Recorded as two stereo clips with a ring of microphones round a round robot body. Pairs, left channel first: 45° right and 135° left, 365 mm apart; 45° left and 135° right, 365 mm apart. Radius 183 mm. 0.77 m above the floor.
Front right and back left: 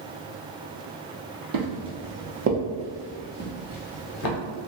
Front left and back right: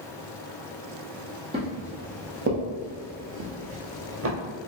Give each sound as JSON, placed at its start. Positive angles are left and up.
{"t": 1.5, "sound": "footsteps", "azimuth_deg": 150, "distance_m": 1.4}